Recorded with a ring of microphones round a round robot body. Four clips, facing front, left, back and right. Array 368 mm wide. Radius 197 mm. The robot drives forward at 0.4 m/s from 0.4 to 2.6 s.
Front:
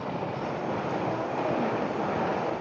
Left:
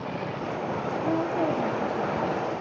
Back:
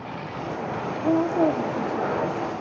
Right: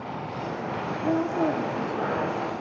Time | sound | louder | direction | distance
1.0 | a woman speaking | right 2 dB, back 13 dB | 165° right | 1.7 m